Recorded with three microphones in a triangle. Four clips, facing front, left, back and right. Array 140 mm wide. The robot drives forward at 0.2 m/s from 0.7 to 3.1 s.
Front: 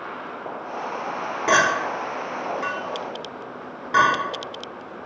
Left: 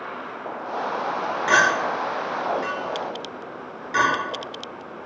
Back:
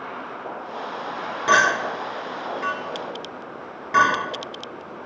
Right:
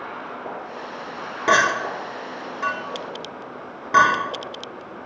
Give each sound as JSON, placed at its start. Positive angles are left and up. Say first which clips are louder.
{"t": 1.5, "sound": "a clink", "louder": "right 1 dB, back 1 dB", "azimuth_deg": -80, "distance_m": 1.2}